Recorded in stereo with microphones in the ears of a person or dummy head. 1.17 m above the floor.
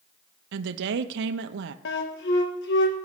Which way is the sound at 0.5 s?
70° right (ahead or behind).